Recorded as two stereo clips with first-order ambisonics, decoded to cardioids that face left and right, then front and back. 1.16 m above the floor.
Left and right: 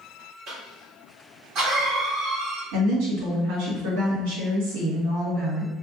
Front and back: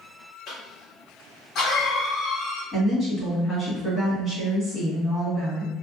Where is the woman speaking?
90° right, 1.8 m.